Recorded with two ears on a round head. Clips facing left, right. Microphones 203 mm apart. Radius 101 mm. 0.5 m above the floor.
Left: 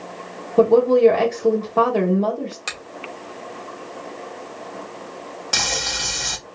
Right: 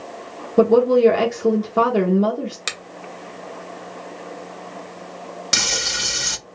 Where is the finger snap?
25° right (ahead or behind), 1.0 m.